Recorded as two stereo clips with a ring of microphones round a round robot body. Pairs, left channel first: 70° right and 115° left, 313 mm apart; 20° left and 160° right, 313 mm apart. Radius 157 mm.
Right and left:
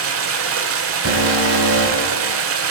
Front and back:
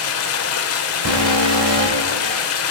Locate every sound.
0.0 s running water: 65° left, 1.5 m
1.1 s an alarm: 165° left, 3 m